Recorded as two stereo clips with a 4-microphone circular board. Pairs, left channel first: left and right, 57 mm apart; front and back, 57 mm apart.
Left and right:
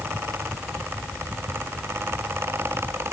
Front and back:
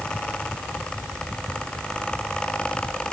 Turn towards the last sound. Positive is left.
No sound to turn to.